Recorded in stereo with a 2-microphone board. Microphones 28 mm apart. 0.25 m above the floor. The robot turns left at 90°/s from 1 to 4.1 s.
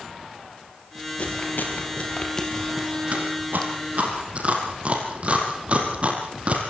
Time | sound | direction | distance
1.2 | chewing | 50° left (ahead or behind) | 5 m